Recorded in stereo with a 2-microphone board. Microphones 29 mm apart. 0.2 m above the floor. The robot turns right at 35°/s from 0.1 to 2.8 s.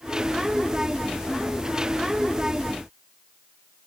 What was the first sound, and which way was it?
Only background noise.